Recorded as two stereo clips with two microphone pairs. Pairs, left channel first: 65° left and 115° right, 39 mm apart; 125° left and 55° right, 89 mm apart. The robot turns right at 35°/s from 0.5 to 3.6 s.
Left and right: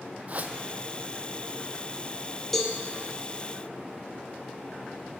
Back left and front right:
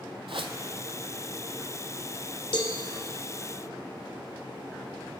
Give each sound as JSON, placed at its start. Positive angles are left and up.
{"t": 0.3, "sound": "a whoosh", "azimuth_deg": -70, "distance_m": 0.5}
{"t": 2.5, "sound": "a cowbell", "azimuth_deg": 145, "distance_m": 0.8}